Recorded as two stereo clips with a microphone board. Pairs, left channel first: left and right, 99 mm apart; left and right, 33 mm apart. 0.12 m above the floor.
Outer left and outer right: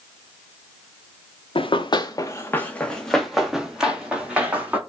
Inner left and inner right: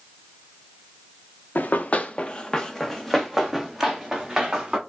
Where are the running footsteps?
65° left (ahead or behind), 0.8 m; by 4.8 s 15° right (ahead or behind), 2.5 m.